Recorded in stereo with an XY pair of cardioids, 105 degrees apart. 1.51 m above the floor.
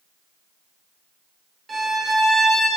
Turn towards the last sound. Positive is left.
turn(degrees=-30)